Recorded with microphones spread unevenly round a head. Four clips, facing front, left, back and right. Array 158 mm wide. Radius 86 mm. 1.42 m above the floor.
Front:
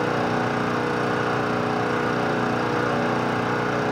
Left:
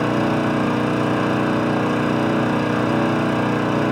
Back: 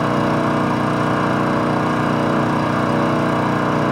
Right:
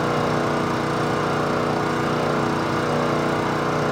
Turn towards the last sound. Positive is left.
turn(degrees=155)